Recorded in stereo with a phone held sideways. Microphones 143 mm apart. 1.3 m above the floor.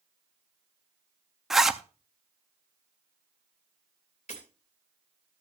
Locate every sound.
1.5 s a zipper: centre (ahead or behind), 0.5 m
4.3 s breaking glass: 50° left (ahead or behind), 3 m